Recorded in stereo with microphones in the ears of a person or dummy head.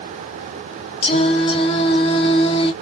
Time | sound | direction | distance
1.0 | singing | 30° left (ahead or behind) | 0.8 m